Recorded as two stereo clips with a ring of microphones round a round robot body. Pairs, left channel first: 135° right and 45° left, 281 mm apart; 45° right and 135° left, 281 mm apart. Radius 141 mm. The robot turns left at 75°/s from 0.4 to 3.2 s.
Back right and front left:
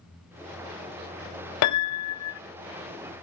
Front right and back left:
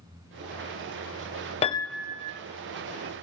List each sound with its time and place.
1.6 s a piano: 115° right, 0.5 m; by 2.4 s 170° right, 0.5 m